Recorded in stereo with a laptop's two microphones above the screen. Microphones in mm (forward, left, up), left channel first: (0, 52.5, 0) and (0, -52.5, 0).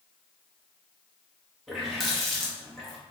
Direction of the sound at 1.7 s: Centre (ahead or behind).